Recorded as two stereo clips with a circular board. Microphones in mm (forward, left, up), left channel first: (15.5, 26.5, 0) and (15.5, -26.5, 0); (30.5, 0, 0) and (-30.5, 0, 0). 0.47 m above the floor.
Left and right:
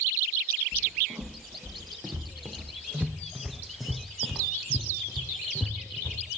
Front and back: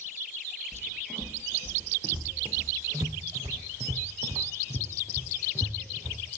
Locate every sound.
0.7 s footsteps: 125° right, 2.5 m; by 6.2 s 135° left, 1.9 m